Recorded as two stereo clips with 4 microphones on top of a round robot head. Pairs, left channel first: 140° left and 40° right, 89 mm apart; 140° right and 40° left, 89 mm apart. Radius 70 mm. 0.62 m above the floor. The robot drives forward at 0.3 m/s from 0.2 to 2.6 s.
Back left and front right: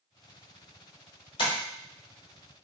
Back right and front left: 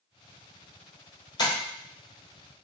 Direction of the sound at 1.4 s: 170° left.